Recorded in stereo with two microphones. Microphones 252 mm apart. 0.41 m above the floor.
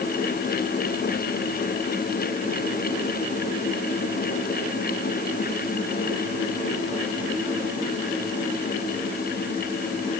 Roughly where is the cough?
I don't hear a cough.